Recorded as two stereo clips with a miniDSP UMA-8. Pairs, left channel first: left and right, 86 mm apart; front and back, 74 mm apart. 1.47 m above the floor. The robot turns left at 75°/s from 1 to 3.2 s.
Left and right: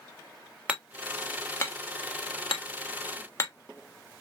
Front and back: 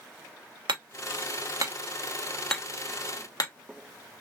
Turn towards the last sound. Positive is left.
turn(degrees=30)